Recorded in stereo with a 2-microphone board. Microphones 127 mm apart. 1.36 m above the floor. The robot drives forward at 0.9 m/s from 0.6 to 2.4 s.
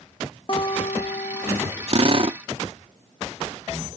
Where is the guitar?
40° left (ahead or behind); by 1.7 s 80° left.